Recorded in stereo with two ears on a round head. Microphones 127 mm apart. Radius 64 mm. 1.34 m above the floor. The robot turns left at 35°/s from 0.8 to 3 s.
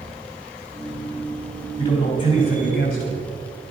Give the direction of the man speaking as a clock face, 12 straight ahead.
7 o'clock.